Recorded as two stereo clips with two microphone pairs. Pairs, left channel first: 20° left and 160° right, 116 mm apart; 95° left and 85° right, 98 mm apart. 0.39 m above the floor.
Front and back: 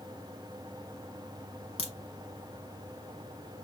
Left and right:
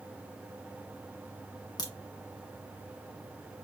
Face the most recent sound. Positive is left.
turn(degrees=55)